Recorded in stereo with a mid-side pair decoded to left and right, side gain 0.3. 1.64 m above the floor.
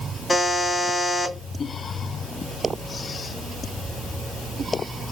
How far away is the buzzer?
About 2.5 m.